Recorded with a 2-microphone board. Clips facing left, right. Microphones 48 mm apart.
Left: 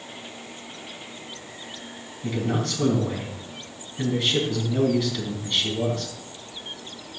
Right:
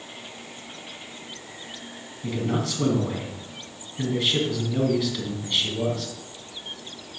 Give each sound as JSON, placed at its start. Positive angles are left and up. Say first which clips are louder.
{"t": 2.2, "sound": "a man speaking", "louder": "even", "side_deg": -5, "distance_m": 3.5}